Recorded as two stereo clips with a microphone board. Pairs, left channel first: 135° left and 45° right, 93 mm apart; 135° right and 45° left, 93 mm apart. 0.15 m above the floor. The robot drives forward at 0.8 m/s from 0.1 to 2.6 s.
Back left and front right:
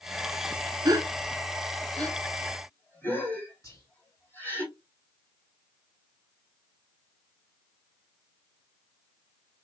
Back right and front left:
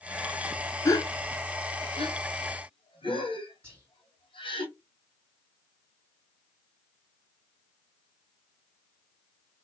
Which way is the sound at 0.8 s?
85° right.